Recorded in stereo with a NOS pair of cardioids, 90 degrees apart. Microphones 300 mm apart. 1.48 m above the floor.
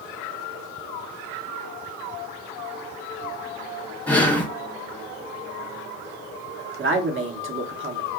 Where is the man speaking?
40° right, 0.9 m.